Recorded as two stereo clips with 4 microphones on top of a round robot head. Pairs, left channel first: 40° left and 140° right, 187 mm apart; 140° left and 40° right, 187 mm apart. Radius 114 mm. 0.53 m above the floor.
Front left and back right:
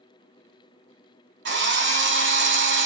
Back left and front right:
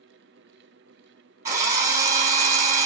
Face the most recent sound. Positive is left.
turn(degrees=-115)